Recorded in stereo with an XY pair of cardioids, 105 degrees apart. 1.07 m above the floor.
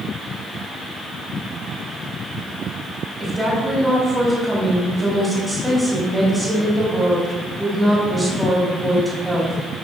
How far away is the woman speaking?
About 4.5 m.